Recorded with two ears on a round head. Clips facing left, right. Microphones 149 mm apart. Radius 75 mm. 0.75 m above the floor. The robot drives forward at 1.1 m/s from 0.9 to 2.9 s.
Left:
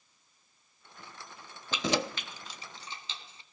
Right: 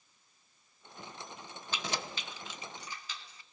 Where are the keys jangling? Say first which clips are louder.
Left 8 dB; 60° left (ahead or behind), 0.6 m; by 3.4 s 25° left (ahead or behind), 1.4 m.